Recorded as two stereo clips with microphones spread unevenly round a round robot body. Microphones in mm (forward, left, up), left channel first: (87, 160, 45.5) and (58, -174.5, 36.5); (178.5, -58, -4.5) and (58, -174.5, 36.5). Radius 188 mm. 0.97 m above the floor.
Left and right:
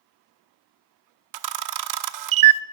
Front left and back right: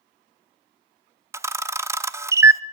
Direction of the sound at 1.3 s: 65° right.